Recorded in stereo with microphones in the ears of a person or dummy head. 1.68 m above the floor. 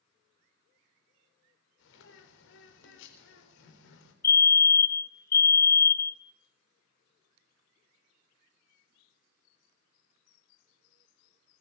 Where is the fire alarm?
15° left (ahead or behind), 0.9 m.